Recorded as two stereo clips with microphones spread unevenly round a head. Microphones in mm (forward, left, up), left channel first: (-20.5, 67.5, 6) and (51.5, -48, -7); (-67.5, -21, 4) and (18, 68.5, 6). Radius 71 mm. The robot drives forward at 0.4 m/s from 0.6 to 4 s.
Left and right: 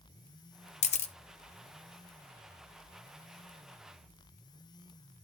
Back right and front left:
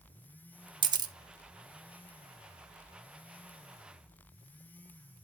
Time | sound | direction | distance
0.8 | a camera shutter | 90° left | 1.1 m